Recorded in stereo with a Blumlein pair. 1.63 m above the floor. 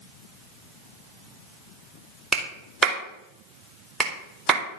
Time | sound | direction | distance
2.3 | a clap | 15° right | 3.5 m